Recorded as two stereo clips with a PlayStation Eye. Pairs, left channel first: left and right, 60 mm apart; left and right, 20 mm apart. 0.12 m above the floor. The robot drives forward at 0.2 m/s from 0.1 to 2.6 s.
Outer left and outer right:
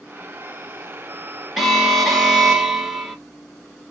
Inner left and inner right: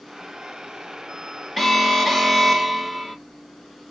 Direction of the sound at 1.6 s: 5° right (ahead or behind).